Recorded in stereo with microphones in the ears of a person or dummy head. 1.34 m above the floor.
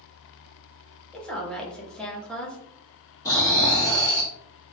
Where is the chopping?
I don't hear chopping.